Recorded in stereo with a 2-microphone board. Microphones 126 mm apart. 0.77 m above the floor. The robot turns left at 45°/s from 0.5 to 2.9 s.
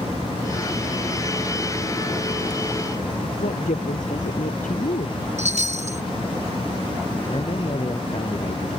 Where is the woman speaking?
85° left.